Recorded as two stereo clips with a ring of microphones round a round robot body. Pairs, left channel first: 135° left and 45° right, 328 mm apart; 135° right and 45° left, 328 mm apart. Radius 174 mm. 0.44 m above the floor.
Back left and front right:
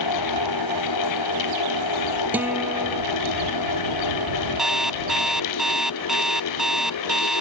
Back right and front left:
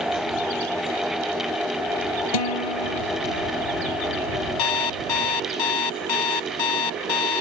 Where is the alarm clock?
135° right.